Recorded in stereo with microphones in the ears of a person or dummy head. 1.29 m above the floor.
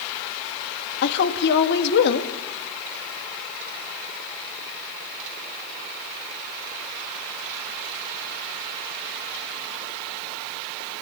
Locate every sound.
1.0 s a woman speaking: 60° left (ahead or behind), 1.9 m